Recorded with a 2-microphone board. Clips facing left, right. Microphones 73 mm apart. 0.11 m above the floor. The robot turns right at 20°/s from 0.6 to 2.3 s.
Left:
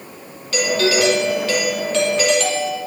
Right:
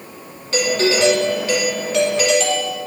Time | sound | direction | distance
0.5 | a doorbell | 35° right | 4 m